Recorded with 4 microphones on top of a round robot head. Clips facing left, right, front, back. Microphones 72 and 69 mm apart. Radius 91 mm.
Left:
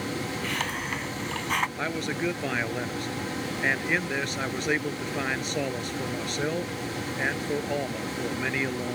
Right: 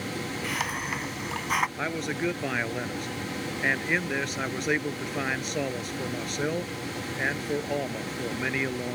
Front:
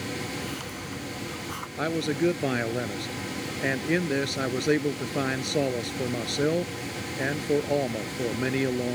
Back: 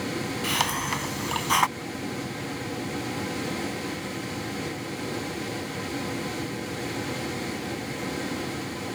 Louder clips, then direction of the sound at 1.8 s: Even, front 7 dB; straight ahead.